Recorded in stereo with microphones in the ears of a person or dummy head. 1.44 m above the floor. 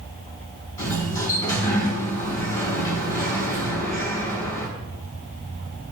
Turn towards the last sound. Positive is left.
turn(degrees=25)  # may be behind; listen again after turning